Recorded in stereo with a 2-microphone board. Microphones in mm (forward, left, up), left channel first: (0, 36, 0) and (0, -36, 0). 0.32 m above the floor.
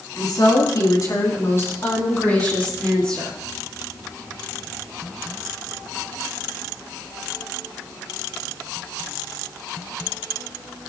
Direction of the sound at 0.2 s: 65° left (ahead or behind).